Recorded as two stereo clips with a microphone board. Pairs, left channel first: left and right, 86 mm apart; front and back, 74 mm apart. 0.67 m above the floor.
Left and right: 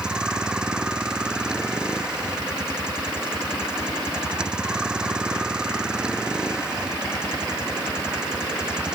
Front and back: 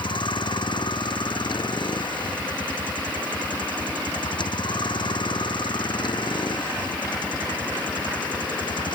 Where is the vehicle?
10° right.